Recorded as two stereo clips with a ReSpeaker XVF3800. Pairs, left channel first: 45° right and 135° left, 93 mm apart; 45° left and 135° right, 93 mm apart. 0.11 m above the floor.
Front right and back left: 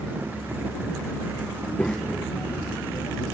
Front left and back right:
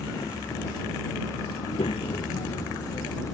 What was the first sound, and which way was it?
A child speaking, 35° left.